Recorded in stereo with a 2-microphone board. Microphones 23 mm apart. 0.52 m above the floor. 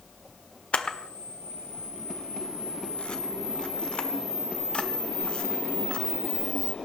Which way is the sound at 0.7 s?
55° left (ahead or behind).